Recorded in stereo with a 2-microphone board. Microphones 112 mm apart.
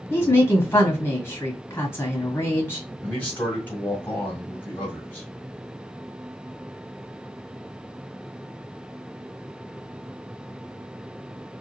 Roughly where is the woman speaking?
Left.